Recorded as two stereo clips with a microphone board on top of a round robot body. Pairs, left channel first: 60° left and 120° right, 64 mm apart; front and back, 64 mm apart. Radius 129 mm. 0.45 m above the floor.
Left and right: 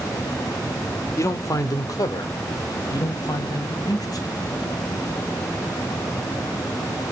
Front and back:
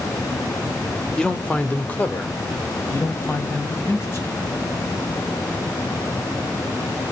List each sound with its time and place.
1.2 s a man speaking: 75° left, 1.5 m; by 4.5 s 50° left, 4.5 m